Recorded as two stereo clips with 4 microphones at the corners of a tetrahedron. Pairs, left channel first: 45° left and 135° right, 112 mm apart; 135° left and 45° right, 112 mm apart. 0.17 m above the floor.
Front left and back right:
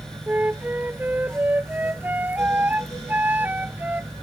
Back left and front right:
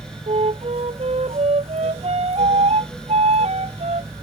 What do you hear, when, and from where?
0.3 s a flute: 60° right